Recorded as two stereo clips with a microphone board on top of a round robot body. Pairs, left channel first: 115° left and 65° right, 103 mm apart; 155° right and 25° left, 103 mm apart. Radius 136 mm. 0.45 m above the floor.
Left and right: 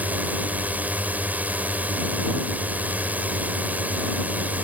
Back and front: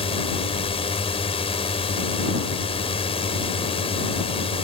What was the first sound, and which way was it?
A drone, 140° right.